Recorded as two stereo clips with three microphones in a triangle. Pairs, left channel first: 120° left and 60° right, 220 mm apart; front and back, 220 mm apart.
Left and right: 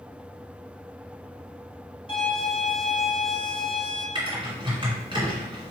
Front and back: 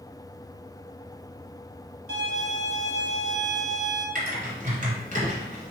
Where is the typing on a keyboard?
125° right, 1.8 m.